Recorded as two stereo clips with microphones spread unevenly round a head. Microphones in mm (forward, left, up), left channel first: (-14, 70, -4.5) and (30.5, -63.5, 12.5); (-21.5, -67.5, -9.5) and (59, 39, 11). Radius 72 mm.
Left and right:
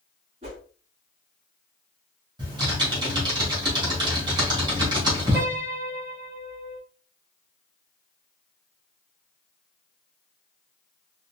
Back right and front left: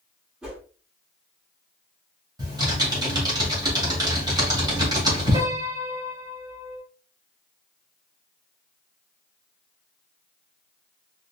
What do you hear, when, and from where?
0.4 s a whoosh: 30° right, 2 m
2.4 s typing on a keyboard: 10° right, 2.5 m
5.3 s a piano: 5° right, 2.5 m